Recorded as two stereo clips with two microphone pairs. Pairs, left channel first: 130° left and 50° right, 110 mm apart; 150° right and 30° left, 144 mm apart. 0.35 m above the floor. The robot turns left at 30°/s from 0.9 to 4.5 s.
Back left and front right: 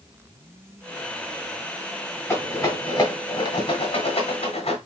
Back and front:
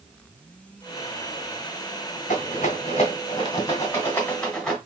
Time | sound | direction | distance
2.3 | a rattle | 165° right | 1.9 m